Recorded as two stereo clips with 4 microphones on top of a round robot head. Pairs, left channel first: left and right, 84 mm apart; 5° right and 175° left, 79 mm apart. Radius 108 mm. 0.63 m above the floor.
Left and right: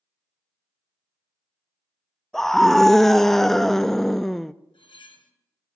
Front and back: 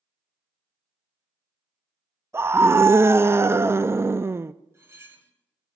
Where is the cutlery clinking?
115° left, 2.5 m.